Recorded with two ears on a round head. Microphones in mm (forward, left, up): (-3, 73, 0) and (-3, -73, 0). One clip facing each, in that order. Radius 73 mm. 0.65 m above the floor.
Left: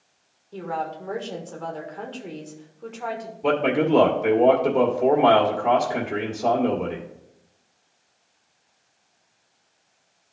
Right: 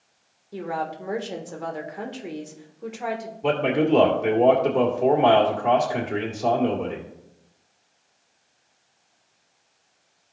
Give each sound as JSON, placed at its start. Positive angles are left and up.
{"t": 0.5, "sound": "a woman speaking", "side_deg": -10, "distance_m": 1.4}
{"t": 3.4, "sound": "a man speaking", "side_deg": 0, "distance_m": 1.9}